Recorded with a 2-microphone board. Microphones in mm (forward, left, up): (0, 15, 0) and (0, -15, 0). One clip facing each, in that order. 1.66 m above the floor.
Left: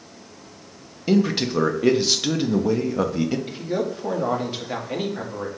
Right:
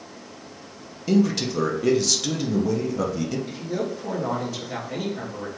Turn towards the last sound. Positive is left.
turn(degrees=40)  # may be behind; listen again after turning